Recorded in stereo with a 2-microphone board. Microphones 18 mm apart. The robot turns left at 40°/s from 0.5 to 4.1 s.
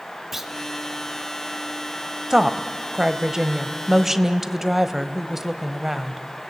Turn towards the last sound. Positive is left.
turn(degrees=-140)